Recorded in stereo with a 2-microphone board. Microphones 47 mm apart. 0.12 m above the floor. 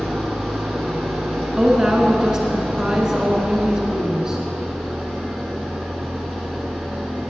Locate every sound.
0.0 s an engine running: centre (ahead or behind), 1.4 m
1.6 s a woman speaking: 15° right (ahead or behind), 1.1 m